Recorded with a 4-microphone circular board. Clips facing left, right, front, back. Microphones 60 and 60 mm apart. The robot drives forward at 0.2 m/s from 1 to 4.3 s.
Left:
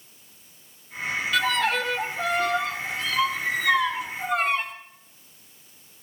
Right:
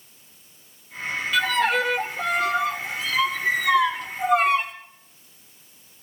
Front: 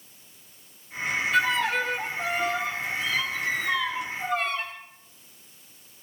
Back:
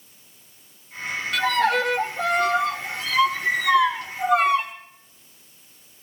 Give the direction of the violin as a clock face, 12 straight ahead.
6 o'clock.